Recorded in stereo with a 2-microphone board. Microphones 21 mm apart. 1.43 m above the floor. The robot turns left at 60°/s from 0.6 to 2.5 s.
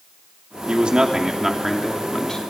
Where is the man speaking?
110° right, 3 m; by 2.4 s 145° left, 3 m.